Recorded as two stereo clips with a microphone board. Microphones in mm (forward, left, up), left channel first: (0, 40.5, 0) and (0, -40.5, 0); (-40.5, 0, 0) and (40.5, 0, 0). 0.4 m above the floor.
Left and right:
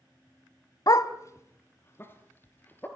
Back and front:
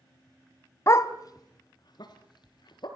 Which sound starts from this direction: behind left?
A dog barking, at 0.9 s.